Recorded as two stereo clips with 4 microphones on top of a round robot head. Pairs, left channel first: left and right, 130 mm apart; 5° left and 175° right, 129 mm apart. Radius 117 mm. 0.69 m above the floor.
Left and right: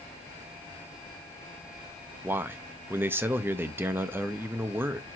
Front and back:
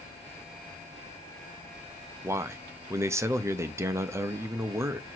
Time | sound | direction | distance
2.2 | a man speaking | 140° right | 0.5 m